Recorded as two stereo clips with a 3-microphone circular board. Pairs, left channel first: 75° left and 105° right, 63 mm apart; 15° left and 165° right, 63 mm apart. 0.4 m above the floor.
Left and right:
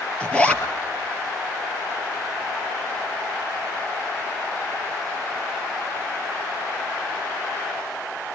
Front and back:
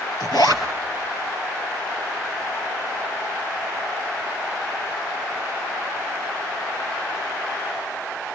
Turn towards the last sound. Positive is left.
turn(degrees=0)